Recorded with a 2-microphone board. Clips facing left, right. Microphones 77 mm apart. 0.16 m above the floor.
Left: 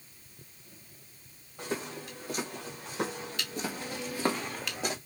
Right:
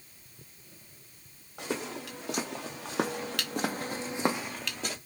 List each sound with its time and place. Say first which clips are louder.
1.6 s footsteps: right 1 dB; 80° right, 2 m; by 5.0 s 20° left (ahead or behind), 1.0 m